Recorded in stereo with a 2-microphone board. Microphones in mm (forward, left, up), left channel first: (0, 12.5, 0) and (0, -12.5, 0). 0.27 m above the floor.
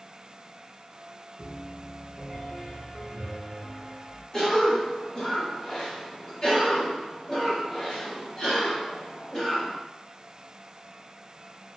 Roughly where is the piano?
Centre.